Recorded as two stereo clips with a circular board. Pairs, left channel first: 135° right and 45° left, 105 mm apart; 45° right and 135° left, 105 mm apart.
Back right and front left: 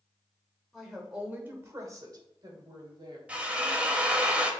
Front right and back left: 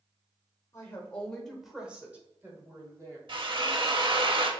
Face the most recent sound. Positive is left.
turn(degrees=120)